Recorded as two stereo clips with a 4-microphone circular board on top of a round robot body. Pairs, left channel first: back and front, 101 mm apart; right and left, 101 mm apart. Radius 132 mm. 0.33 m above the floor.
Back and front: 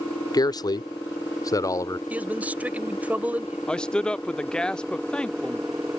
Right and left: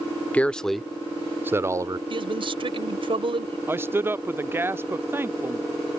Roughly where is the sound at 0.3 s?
Behind.